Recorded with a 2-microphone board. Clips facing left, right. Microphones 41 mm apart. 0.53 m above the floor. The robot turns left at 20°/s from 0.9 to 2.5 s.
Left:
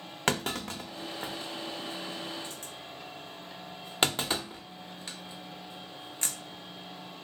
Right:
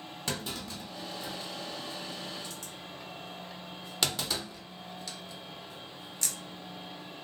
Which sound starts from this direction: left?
A clunk, at 0.3 s.